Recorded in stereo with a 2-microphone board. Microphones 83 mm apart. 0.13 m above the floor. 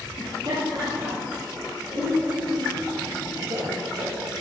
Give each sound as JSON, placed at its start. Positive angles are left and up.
{"t": 0.2, "sound": "laughter", "side_deg": -65, "distance_m": 3.5}